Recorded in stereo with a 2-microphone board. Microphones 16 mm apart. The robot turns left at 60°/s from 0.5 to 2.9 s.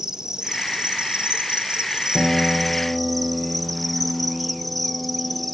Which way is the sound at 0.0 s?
40° right.